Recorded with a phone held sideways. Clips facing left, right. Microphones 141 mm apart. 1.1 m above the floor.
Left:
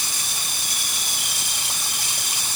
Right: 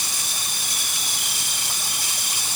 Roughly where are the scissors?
I don't hear scissors.